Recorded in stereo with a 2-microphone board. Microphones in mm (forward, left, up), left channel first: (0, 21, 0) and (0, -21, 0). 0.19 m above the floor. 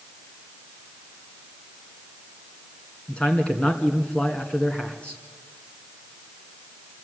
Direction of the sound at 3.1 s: 25° left (ahead or behind).